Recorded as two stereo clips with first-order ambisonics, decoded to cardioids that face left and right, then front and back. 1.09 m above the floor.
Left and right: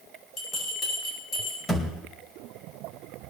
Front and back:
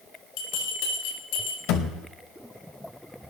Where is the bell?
20° left, 10 m.